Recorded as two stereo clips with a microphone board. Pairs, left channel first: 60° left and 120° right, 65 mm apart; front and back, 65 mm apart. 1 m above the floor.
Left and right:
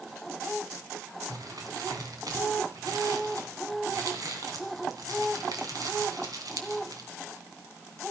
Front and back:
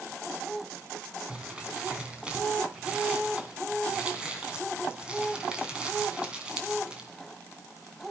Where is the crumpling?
105° right, 2.5 m.